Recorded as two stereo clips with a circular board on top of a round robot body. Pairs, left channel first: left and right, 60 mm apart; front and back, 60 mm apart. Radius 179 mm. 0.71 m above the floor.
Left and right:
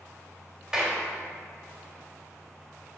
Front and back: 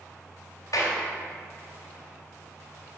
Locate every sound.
0.7 s a clap: 10° right, 2 m